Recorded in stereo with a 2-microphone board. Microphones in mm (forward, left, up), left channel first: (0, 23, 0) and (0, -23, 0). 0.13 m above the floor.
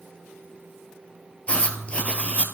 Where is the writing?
30° left (ahead or behind), 0.5 m.